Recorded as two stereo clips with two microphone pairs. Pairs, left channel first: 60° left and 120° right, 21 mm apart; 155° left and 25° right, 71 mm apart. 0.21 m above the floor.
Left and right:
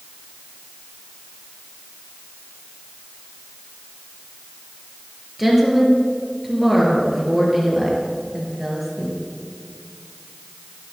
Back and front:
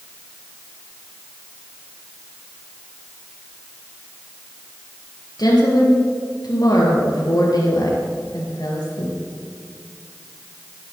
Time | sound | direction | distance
5.4 | a woman speaking | 160° left | 5 m